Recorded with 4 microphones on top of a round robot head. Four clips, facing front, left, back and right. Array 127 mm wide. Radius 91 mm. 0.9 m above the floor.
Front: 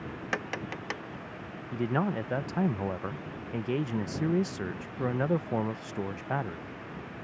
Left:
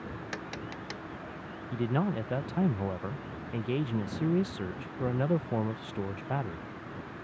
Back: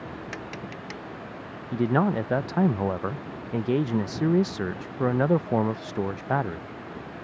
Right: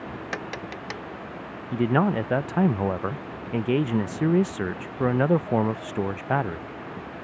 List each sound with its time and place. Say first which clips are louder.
0.3 s tapping: right 6 dB, front 2 dB; 35° right
1.7 s a man speaking: right 8 dB, back 6 dB; 125° right